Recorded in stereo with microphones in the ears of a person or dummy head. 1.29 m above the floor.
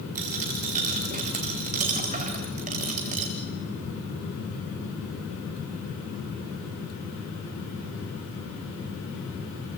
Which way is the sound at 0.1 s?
35° right (ahead or behind).